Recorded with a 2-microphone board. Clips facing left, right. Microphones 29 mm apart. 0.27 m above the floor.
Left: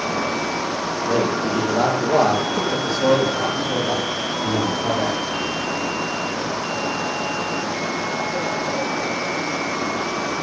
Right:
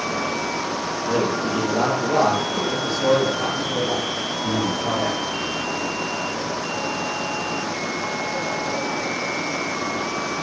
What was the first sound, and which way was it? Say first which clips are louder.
A man speaking: left 1 dB; 5° right (ahead or behind).